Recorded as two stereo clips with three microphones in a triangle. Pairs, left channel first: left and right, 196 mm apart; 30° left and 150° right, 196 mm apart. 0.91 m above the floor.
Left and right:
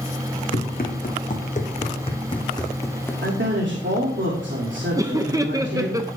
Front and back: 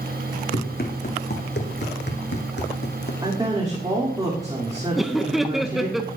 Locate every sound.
0.5 s running footsteps: 60° left, 2.5 m; by 3.1 s 15° left, 1.8 m
3.2 s a woman speaking: 80° right, 2.5 m
5.0 s laughter: 65° right, 0.6 m